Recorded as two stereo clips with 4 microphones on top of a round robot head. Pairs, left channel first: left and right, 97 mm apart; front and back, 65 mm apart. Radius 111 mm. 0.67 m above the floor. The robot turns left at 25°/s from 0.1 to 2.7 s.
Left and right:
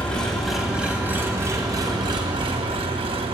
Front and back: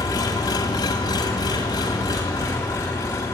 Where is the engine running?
10° left, 2.5 m; by 3.3 s 55° right, 2.5 m.